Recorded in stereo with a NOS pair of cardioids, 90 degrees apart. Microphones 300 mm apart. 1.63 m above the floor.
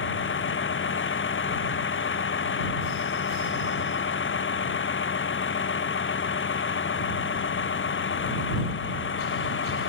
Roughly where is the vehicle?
Ahead left.